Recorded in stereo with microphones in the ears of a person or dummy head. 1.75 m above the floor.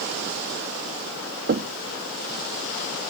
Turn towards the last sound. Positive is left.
turn(degrees=-50)  # may be behind; listen again after turning